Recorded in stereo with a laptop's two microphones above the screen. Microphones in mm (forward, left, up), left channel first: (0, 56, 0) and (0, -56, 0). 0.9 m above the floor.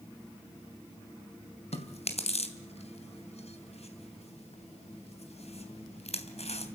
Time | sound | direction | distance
1.7 | chewing | 70° left (ahead or behind) | 3 m